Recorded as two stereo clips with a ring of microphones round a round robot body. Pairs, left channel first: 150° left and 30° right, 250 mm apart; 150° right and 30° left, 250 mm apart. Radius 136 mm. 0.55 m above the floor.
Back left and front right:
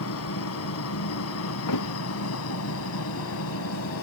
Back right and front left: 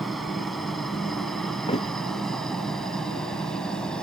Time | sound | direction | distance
0.0 | a helicopter | 120° left | ?
1.7 | a thud | 140° left | ?